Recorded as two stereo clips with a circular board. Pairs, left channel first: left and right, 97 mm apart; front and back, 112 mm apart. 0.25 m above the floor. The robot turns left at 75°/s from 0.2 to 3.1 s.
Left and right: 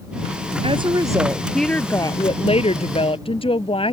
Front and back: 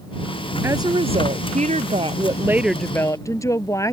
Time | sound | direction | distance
0.6 | a woman speaking | 110° right | ?